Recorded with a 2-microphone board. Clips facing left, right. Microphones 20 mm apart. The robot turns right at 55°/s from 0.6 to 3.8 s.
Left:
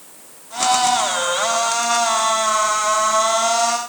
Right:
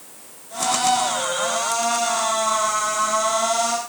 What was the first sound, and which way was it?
Only background noise.